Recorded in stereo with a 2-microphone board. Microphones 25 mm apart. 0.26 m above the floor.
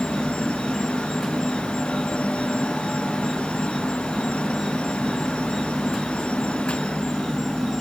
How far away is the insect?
About 1.0 m.